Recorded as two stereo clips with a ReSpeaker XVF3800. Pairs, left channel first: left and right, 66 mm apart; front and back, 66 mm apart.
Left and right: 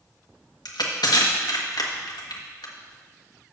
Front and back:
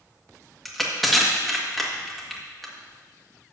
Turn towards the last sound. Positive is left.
turn(degrees=90)